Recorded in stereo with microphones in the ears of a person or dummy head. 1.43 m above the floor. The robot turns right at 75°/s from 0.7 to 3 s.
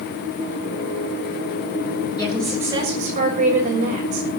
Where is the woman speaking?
160° left, 6.5 m; by 4.3 s 140° right, 6.5 m.